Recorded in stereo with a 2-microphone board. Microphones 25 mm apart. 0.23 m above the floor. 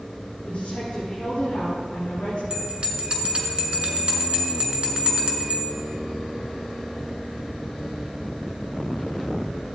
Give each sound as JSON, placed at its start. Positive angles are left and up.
{"t": 0.5, "sound": "a woman speaking", "side_deg": 55, "distance_m": 2.5}
{"t": 2.5, "sound": "a bell", "side_deg": -35, "distance_m": 2.0}